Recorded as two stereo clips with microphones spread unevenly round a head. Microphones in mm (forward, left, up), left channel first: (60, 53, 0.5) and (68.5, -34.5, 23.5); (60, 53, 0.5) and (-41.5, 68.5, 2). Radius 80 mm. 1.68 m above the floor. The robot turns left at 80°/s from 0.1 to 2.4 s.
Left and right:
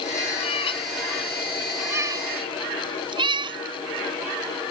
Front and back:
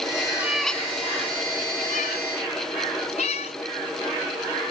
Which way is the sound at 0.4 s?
100° left.